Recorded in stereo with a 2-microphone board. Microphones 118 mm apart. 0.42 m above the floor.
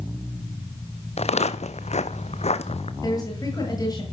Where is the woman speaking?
30° left (ahead or behind), 8 m.